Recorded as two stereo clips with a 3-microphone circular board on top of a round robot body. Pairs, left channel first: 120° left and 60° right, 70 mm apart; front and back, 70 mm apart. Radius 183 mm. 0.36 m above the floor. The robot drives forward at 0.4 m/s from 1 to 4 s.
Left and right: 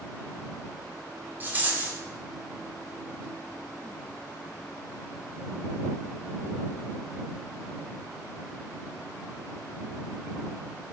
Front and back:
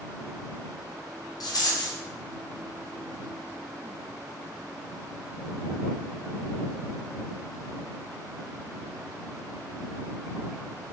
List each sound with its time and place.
1.4 s a rattle: straight ahead, 1.4 m; by 2.0 s 5° left, 1.2 m